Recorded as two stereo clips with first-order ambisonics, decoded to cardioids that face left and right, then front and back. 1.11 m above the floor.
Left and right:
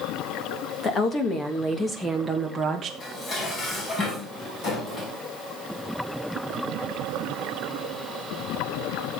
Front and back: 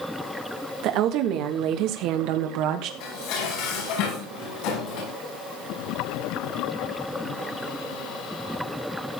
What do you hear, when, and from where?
0.8 s a woman speaking: 150° left, 1.9 m; by 2.9 s 160° right, 1.3 m
3.0 s dishes clattering: 25° left, 6 m